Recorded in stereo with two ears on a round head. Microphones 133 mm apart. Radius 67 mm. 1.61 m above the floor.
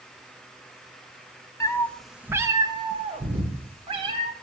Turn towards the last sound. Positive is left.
turn(degrees=-40)  # may be behind; listen again after turning